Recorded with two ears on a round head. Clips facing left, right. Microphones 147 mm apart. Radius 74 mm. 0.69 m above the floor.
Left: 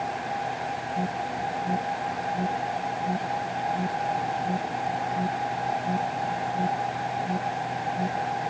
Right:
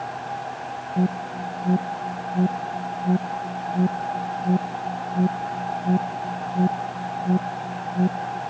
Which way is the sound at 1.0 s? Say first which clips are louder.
Right 6 dB; 40° right (ahead or behind).